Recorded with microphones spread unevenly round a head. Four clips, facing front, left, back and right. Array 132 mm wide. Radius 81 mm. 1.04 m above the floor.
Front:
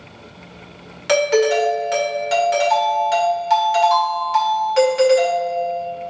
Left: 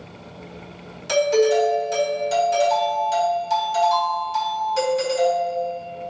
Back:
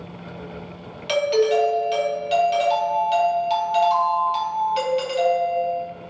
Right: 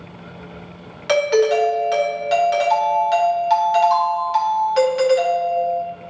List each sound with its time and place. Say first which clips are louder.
1.1 s a doorbell: right 2 dB, front 3 dB; 50° right, 1.6 m